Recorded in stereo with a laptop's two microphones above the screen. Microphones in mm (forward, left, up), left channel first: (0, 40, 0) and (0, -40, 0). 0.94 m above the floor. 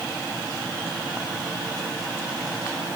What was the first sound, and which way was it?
Only background noise.